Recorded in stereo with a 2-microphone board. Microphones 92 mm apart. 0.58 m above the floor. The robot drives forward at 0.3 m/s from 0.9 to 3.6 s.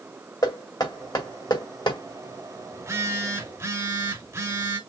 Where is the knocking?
50° left (ahead or behind), 2.0 m; by 2.0 s 55° left (ahead or behind), 1.8 m.